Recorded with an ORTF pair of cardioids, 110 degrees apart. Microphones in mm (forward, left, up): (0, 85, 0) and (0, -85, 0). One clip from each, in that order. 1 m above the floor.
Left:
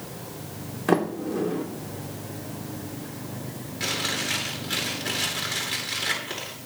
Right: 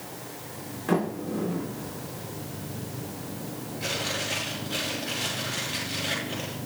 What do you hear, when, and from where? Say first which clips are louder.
0.9 s a sliding door: left 4 dB; 40° left, 2.5 m
3.8 s chewing: left 3 dB; 70° left, 9 m